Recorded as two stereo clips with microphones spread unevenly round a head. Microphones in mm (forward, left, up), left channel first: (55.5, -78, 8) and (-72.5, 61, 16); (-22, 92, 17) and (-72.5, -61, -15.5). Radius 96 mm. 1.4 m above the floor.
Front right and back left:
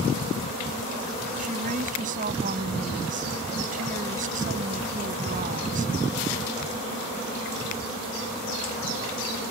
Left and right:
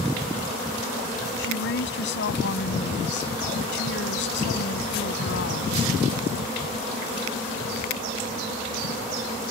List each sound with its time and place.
1.4 s a woman speaking: 80° left